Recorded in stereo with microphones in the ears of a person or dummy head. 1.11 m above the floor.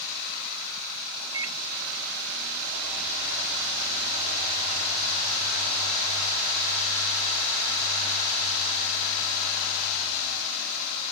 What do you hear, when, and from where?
1.3 s a microwave: 80° right